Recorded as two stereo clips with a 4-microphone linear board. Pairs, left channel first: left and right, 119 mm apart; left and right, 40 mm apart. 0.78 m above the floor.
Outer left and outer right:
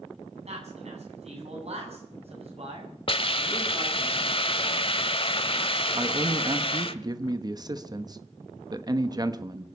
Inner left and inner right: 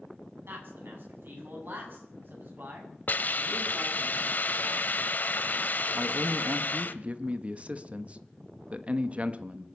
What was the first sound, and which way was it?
A man speaking, 65° right (ahead or behind).